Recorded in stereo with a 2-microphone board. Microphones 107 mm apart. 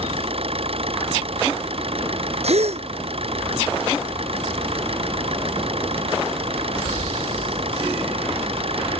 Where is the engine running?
65° right (ahead or behind).